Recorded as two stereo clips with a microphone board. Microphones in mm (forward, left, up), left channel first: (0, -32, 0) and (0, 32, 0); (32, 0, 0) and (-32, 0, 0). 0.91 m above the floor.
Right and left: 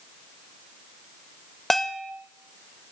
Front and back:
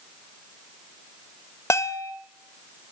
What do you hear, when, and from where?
1.7 s a bell: 5° right, 1.2 m